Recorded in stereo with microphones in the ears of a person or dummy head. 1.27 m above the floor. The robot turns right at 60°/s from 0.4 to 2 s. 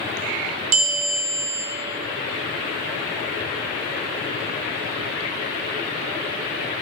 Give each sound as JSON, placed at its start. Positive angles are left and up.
{"t": 0.7, "sound": "a bell", "azimuth_deg": -45, "distance_m": 0.6}